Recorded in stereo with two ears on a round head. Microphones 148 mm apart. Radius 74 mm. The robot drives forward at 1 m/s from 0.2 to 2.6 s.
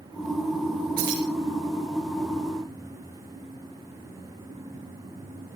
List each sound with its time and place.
1.0 s keys jangling: 55° right (ahead or behind), 6 m; by 1.2 s 60° right (ahead or behind), 6 m